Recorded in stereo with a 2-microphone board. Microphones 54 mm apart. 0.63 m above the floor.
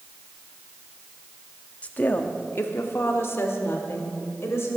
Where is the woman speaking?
25° left (ahead or behind), 0.9 m; by 4.8 s 55° left (ahead or behind), 3 m.